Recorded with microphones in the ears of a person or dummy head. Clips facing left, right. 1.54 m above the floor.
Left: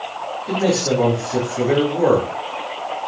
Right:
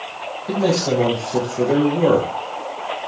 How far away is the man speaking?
About 2.5 m.